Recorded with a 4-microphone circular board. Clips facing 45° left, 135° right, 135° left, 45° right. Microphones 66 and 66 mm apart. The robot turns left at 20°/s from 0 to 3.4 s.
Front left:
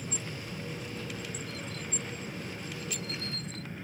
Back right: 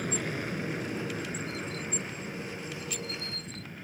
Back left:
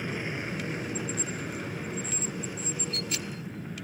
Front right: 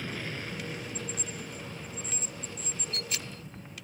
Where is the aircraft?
155° right; by 3.8 s 140° left.